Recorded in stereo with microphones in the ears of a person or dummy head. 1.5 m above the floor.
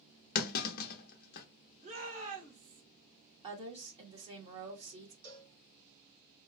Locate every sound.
0.3 s a clunk: 50° left (ahead or behind), 0.6 m
1.8 s a shout: 45° right (ahead or behind), 1.8 m
3.4 s a woman speaking: 35° right (ahead or behind), 1.4 m
5.2 s a cowbell: 65° right (ahead or behind), 1.9 m